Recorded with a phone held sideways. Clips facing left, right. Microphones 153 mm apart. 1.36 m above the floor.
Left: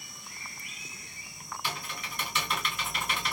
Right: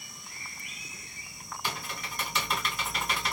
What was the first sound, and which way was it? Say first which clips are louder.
Typing on a keyboard: right 2 dB; 35° right (ahead or behind).